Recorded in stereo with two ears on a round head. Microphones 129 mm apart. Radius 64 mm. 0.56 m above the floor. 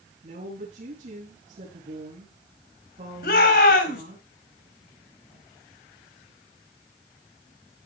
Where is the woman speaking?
50° right (ahead or behind), 5.5 m.